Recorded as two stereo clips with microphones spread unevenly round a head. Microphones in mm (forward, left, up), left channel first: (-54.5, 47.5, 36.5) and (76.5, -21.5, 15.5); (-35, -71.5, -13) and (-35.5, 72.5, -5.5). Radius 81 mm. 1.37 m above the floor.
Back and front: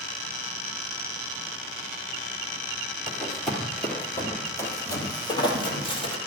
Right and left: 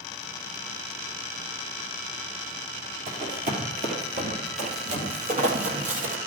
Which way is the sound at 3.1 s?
65° left.